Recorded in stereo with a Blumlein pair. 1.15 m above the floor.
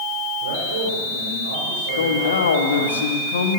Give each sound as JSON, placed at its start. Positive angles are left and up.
{"t": 0.4, "sound": "a man speaking", "azimuth_deg": -65, "distance_m": 3.5}
{"t": 2.0, "sound": "a man speaking", "azimuth_deg": 65, "distance_m": 1.8}